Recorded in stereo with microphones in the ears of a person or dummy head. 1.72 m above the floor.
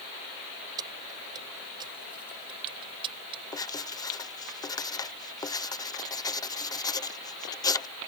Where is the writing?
20° left (ahead or behind).